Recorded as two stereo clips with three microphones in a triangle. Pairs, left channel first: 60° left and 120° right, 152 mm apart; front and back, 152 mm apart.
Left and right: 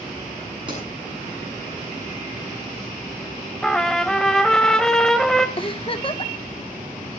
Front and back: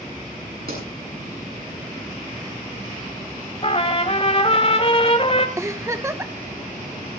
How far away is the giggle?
About 1.1 m.